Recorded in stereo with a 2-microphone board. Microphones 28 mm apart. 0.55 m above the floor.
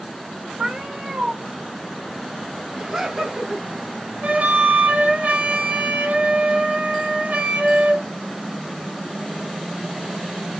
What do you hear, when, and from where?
0.6 s a cat meowing: 40° right (ahead or behind), 1.2 m
2.8 s laughter: 25° right (ahead or behind), 1.4 m
4.2 s a flute: 75° right (ahead or behind), 1.4 m